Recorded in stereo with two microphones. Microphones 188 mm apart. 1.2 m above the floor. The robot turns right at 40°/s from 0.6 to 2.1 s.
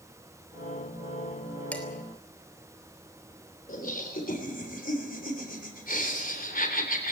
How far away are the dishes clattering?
About 3 m.